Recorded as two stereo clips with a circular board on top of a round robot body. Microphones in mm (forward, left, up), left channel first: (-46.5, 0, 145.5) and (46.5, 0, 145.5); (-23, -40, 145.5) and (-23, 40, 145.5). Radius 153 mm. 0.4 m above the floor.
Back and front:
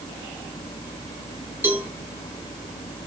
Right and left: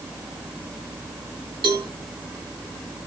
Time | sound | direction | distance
1.6 | a cowbell | 70° left | 2.5 m